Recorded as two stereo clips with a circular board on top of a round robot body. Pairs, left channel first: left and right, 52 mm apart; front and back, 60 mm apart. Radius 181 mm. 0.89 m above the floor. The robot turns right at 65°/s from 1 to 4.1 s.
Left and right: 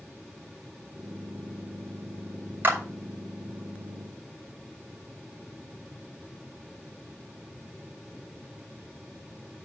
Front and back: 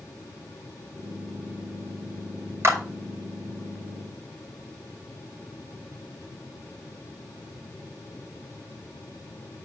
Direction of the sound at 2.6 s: 140° right.